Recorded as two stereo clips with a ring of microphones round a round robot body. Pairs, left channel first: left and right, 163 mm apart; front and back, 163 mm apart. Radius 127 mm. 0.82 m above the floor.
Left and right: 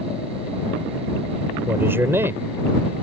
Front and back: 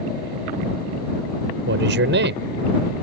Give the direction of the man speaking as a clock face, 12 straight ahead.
6 o'clock.